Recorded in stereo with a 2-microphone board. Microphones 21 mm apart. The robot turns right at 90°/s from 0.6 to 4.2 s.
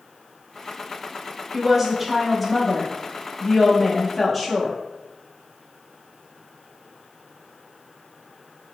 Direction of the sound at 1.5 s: 15° right (ahead or behind).